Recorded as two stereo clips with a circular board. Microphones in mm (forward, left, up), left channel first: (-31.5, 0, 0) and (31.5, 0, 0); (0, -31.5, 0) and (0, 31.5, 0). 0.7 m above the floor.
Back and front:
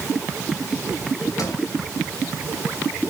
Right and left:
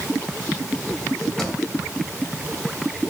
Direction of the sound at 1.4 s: 175° right.